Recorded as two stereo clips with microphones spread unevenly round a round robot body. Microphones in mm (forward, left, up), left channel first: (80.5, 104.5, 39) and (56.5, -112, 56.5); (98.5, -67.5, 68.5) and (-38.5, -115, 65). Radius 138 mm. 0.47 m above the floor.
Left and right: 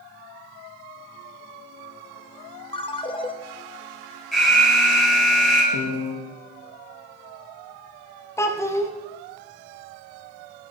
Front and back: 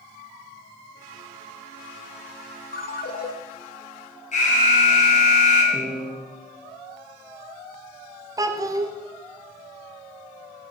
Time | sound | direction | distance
2.7 | a ringtone | 15° left | 0.7 m
4.3 | an alarm | 5° right | 3 m
5.7 | a piano | 115° left | 0.7 m
8.4 | a child speaking | 150° left | 0.6 m